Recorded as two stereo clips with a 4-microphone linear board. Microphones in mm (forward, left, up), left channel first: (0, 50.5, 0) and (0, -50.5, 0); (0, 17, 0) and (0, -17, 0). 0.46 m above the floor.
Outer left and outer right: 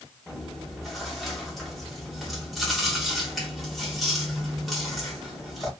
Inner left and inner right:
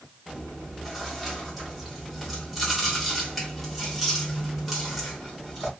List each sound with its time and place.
0.3 s chewing: centre (ahead or behind), 1.4 m